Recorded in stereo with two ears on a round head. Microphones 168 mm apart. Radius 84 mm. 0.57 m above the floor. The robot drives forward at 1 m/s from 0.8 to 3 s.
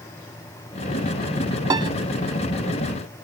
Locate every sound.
1.7 s a piano: 20° right (ahead or behind); by 1.9 s 25° right (ahead or behind)